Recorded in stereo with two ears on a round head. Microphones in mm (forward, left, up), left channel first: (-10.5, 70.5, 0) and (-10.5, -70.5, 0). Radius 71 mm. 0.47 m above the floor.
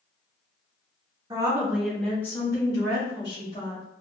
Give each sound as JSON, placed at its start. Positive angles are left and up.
{"t": 1.3, "sound": "a woman speaking", "side_deg": -25, "distance_m": 0.8}